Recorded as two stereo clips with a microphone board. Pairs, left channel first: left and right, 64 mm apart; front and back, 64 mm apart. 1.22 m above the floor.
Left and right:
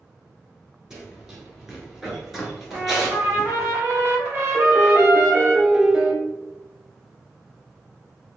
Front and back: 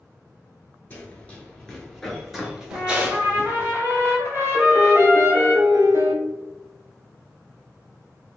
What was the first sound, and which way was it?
Running footsteps, 15° right.